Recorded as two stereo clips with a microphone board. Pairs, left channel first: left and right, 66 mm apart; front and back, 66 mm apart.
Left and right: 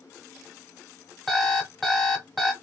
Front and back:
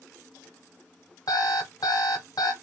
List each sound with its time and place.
1.3 s an alarm clock: straight ahead, 1.5 m